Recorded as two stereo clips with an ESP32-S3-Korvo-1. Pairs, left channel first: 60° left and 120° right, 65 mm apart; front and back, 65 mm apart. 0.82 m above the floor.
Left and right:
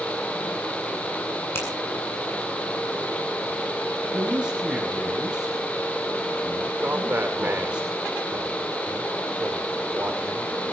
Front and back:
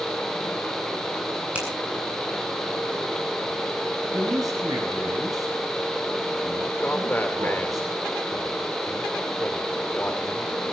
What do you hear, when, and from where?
1.6 s a finger snap: 115° left, 8 m
4.1 s a man speaking: 165° left, 5 m
6.8 s a man speaking: 60° right, 3 m